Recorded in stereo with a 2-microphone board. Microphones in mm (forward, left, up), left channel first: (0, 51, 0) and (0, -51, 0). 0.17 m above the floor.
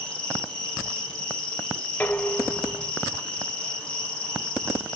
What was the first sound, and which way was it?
An insect, 5° left (ahead or behind).